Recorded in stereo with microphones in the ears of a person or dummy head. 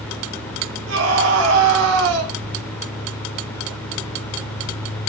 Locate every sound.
0.9 s a scream: 85° right, 2 m